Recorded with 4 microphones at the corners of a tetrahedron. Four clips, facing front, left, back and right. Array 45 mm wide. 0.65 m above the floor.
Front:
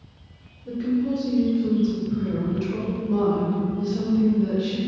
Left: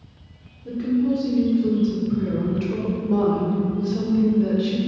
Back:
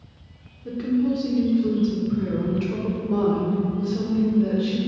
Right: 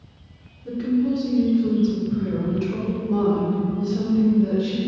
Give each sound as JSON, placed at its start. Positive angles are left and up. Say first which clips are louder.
{"t": 0.7, "sound": "a woman speaking", "louder": "even, back 1 dB", "azimuth_deg": 180, "distance_m": 1.4}